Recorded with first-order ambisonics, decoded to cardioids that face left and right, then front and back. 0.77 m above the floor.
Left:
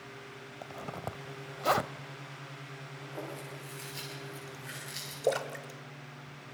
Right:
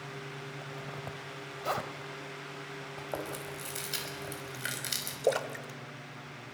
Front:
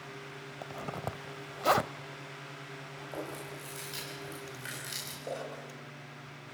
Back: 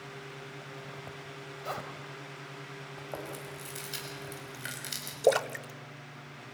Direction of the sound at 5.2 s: 175° right.